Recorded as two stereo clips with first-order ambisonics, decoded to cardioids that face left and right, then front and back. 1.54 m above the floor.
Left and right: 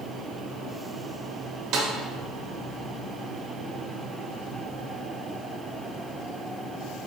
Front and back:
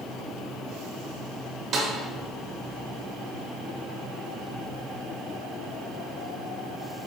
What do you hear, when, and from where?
1.7 s a snare drum: 115° right, 0.9 m